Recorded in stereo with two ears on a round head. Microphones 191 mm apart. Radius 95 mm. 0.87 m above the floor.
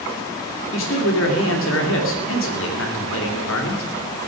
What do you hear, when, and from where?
0.7 s a man speaking: 65° left (ahead or behind), 2.5 m